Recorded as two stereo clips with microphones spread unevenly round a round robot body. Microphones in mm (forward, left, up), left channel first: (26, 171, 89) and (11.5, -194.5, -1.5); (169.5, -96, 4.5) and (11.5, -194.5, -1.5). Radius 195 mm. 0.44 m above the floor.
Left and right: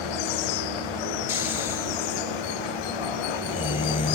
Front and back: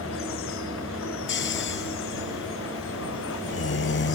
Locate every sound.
0.0 s running water: 75° left
1.3 s snoring: 15° left